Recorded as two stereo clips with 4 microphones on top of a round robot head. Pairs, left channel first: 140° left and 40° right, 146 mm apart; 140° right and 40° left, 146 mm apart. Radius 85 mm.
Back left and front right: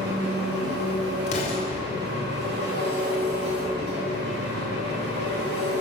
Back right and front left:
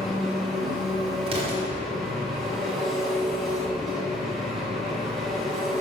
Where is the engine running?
50° right, 1.3 m.